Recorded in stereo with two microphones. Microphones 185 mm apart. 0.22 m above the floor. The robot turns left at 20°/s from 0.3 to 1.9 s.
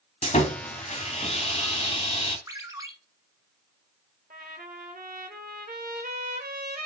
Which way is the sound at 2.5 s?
20° right (ahead or behind).